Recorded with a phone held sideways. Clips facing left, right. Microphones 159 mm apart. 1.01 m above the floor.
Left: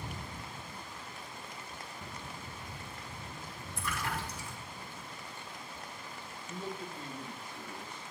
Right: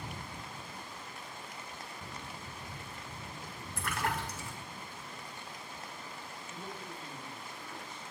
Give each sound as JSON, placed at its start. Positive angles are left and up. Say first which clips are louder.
{"t": 3.8, "sound": "a splash", "louder": "right 2 dB", "side_deg": -80, "distance_m": 4.0}
{"t": 6.5, "sound": "a man speaking", "louder": "left 6 dB", "side_deg": 70, "distance_m": 4.5}